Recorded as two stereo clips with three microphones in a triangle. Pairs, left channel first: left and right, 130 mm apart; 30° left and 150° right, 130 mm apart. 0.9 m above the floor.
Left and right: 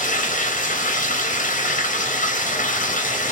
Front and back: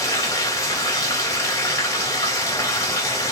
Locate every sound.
0.0 s running water: 95° left, 0.8 m